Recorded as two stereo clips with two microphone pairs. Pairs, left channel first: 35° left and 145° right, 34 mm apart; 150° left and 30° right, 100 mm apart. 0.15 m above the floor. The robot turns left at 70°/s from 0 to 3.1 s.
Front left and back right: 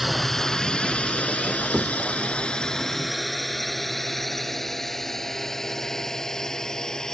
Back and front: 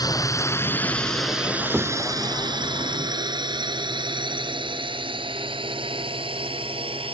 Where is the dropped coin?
No dropped coin in this recording.